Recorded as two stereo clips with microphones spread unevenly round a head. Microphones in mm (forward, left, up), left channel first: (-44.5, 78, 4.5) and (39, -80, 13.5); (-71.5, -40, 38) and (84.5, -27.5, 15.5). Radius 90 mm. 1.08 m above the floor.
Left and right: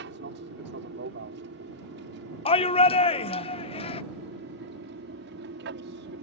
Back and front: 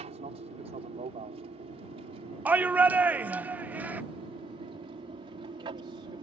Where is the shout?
75° left.